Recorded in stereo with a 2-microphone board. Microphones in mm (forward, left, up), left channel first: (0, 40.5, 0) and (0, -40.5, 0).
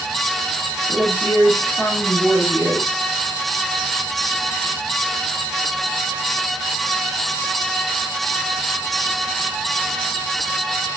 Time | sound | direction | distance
0.9 | a woman speaking | 5° left (ahead or behind) | 7 m